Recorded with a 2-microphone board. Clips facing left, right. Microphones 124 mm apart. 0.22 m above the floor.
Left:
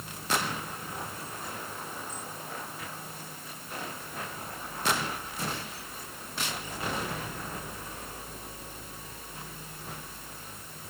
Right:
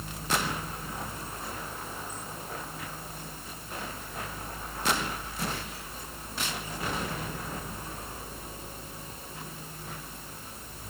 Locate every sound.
Only background noise.